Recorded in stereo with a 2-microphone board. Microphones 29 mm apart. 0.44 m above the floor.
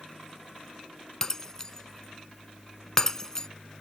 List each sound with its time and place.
1.2 s breaking glass: 20° left (ahead or behind)